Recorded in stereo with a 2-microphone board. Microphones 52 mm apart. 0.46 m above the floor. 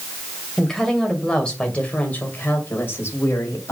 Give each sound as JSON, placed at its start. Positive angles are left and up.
{"t": 0.6, "sound": "a woman speaking", "side_deg": 5, "distance_m": 2.5}